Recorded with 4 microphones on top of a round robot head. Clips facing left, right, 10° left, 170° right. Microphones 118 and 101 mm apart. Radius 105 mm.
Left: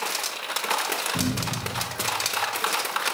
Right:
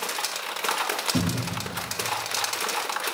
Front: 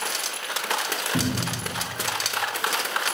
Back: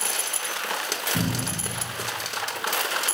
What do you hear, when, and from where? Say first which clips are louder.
1.1 s a cupboard door: right 1 dB, front 2 dB; 50° right, 1.5 m